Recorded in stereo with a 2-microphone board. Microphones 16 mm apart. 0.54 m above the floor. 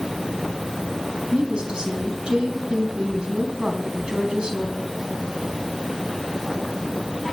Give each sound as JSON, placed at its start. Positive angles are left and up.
{"t": 1.3, "sound": "a woman speaking", "side_deg": -75, "distance_m": 3.5}